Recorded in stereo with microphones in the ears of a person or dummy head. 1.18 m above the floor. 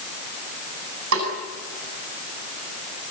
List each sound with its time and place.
1.1 s a snare drum: 85° right, 8 m